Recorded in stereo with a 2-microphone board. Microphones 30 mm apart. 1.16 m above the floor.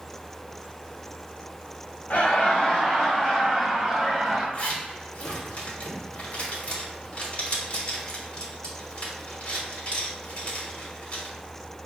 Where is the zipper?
45° left (ahead or behind), 1.1 m.